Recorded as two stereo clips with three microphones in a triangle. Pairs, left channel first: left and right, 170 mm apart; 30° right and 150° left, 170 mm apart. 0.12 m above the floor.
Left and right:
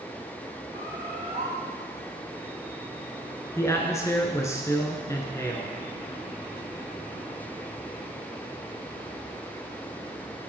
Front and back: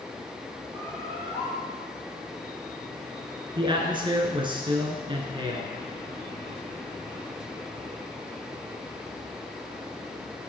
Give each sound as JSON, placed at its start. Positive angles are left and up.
{"t": 0.7, "sound": "a bird", "azimuth_deg": -105, "distance_m": 3.0}
{"t": 3.6, "sound": "a man speaking", "azimuth_deg": 140, "distance_m": 1.2}